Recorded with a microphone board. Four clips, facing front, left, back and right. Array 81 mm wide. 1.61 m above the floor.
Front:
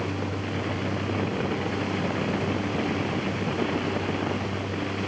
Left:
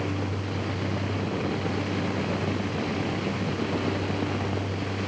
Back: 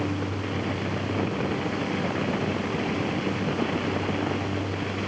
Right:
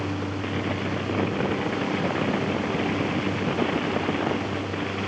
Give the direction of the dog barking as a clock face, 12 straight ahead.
I don't hear a dog barking.